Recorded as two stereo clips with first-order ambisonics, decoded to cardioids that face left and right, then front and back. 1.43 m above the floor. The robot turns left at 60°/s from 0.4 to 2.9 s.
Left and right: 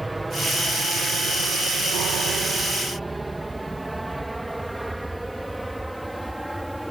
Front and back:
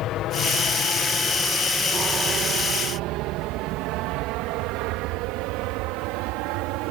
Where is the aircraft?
10° right; by 6.9 s straight behind.